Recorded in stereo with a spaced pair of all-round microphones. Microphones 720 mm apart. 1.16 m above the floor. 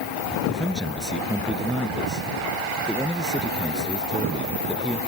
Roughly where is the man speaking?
Centre.